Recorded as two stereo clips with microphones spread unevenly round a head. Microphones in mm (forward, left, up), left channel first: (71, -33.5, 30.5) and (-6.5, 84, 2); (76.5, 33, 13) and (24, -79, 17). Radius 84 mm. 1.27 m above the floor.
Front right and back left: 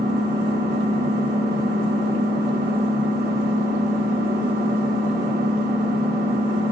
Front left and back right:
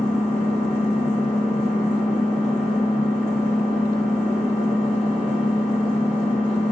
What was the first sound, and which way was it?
An engine running, 125° left.